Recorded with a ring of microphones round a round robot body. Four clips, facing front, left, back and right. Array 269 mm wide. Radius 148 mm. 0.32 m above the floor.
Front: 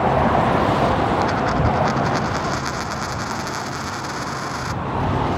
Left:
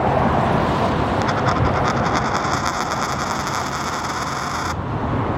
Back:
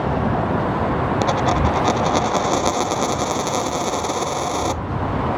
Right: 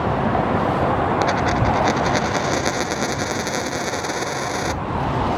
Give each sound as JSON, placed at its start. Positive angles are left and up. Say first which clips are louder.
{"t": 1.2, "sound": "a dropped coin", "louder": "even, back 1 dB", "azimuth_deg": -145}